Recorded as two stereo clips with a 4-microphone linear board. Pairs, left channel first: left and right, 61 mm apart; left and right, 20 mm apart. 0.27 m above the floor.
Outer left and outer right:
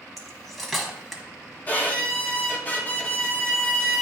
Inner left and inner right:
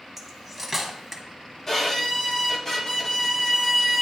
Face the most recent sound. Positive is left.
turn(degrees=25)  # may be behind; listen again after turning